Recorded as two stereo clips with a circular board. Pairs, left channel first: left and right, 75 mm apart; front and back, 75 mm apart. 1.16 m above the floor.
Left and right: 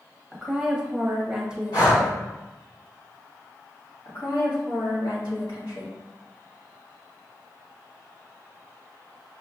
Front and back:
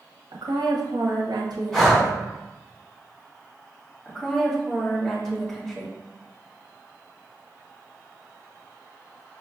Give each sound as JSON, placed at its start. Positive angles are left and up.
{"t": 0.3, "sound": "a woman speaking", "azimuth_deg": -170, "distance_m": 0.9}
{"t": 1.7, "sound": "breathing", "azimuth_deg": 80, "distance_m": 1.6}
{"t": 4.0, "sound": "a woman speaking", "azimuth_deg": 75, "distance_m": 1.6}